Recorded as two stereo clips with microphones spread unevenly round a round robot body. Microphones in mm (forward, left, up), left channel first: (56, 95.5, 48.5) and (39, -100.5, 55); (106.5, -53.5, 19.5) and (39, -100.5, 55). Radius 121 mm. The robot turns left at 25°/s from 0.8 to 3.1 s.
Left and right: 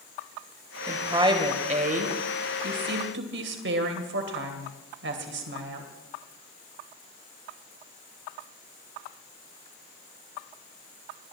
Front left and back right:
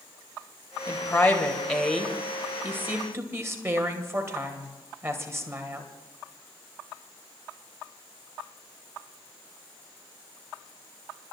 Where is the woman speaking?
20° right, 2.5 m; by 5.9 s 80° right, 2.5 m.